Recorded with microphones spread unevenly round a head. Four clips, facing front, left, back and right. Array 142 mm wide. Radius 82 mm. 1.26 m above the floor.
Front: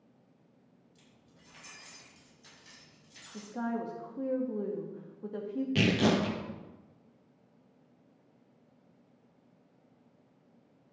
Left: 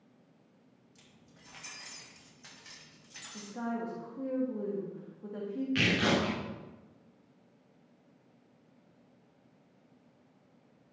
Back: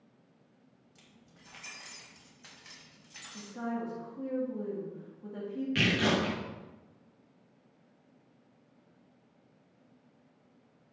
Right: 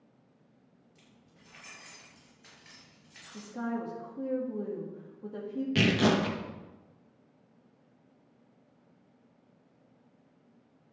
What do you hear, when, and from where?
0.9 s keys jangling: 160° left, 4.5 m; by 3.5 s 150° left, 6 m
3.3 s a woman speaking: 5° left, 1.6 m
5.8 s tearing paper: 30° right, 1.2 m